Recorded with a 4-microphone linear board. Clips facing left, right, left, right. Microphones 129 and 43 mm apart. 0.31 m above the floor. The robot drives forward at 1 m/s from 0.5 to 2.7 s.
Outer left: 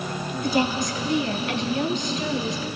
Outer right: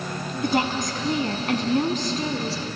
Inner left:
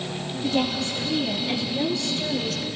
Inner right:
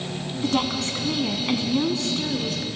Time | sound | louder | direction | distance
0.4 | a woman speaking | even, even | 55° right (ahead or behind) | 3 m